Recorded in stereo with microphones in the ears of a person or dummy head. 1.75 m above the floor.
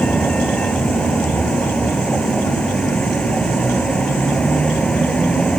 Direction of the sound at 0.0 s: 5° left (ahead or behind).